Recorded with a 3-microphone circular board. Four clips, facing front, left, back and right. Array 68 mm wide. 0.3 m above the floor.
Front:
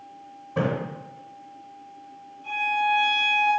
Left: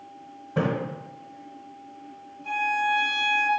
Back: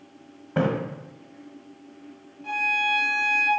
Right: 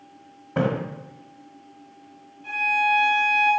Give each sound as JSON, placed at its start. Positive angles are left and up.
{"t": 0.6, "sound": "a splash", "azimuth_deg": -145, "distance_m": 1.8}
{"t": 2.4, "sound": "a violin", "azimuth_deg": -170, "distance_m": 3.0}